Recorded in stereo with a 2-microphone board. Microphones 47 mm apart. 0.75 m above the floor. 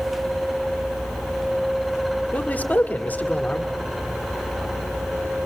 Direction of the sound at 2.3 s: 35° left (ahead or behind).